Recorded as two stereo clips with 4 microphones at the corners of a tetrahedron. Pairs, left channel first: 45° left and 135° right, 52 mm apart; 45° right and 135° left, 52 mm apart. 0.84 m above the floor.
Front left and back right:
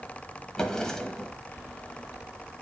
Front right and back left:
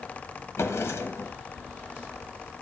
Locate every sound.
0.6 s a drawer: 30° right, 1.1 m